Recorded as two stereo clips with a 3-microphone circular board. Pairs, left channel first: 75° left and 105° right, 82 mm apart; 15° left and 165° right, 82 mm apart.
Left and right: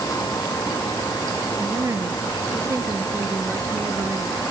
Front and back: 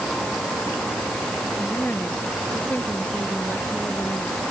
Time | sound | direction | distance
1.6 | a woman speaking | 50° right | ?